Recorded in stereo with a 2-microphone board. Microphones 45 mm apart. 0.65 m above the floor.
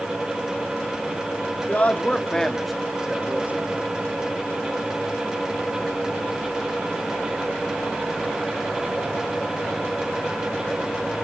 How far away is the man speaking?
About 1.3 m.